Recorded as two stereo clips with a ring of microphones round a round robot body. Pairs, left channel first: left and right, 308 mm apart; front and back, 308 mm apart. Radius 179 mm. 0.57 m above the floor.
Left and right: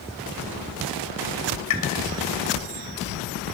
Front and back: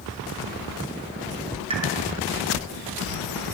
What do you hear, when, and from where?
1.7 s a pop: 105° left, 2.5 m